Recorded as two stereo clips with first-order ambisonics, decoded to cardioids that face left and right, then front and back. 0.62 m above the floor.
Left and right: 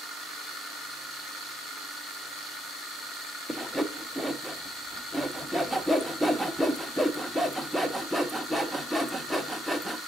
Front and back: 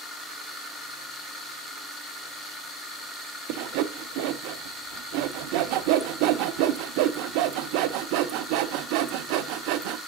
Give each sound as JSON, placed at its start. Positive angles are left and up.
{"t": 3.5, "sound": "sawing", "azimuth_deg": 180, "distance_m": 0.5}